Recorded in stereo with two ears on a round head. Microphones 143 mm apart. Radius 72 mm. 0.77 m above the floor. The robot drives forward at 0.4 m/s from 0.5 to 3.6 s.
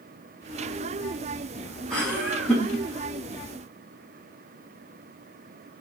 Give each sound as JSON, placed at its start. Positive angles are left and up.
{"t": 1.9, "sound": "laughter", "side_deg": 5, "distance_m": 2.0}